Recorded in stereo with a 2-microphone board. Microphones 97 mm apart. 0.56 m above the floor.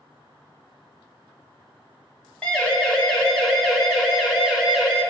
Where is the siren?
15° left (ahead or behind), 4.5 m; by 5.0 s 10° right (ahead or behind), 5.5 m.